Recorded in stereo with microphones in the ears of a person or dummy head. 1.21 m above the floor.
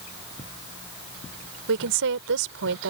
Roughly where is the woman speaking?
Right.